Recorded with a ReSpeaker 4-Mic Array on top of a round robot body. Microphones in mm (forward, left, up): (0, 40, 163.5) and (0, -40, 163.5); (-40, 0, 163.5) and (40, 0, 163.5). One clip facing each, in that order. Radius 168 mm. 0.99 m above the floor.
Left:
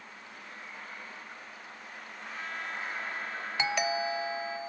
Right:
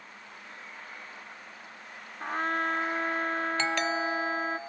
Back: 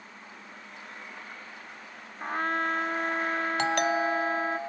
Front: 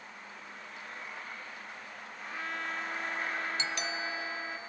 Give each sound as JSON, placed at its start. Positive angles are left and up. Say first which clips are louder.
{"t": 2.2, "sound": "a trumpet", "louder": "right 11 dB, back 10 dB", "azimuth_deg": -135}
{"t": 3.6, "sound": "a doorbell", "louder": "left 3 dB, back 11 dB", "azimuth_deg": 165}